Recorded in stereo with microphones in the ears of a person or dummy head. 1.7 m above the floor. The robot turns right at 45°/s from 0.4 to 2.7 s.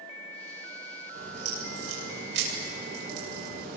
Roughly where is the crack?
Behind right.